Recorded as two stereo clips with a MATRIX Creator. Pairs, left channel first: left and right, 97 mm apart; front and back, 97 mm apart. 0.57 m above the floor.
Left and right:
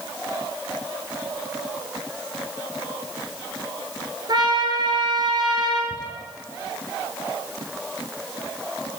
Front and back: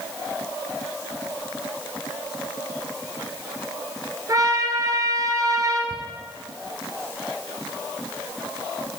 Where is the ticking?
40° left, 1.8 m.